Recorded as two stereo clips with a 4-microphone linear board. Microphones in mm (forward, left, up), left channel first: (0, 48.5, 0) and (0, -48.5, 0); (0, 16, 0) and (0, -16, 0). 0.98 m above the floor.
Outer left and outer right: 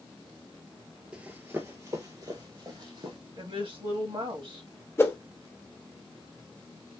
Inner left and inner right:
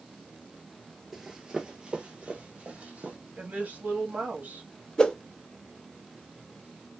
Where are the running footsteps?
10° right (ahead or behind), 1.0 m; by 3.2 s 50° right (ahead or behind), 1.9 m.